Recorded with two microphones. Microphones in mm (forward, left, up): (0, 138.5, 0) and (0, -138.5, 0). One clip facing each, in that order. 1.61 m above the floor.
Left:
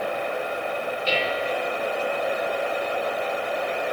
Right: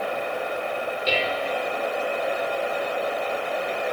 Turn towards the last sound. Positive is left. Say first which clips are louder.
# even
turn(degrees=-50)  # may be behind; listen again after turning